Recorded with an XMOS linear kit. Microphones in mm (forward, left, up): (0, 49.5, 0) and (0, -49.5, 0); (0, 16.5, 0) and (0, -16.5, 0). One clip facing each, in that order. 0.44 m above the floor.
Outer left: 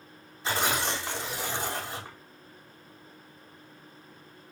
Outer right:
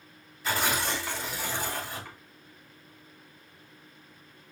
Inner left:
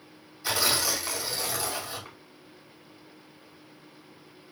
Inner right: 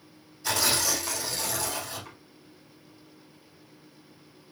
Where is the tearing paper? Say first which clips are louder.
Even, even; 20° left (ahead or behind), 4 m.